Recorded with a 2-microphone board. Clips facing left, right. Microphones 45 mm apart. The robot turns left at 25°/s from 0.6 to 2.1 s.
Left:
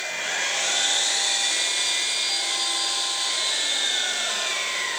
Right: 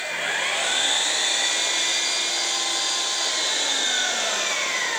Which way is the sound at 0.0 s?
20° right.